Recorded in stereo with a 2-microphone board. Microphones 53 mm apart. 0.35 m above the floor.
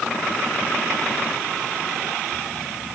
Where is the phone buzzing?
I don't hear a phone buzzing.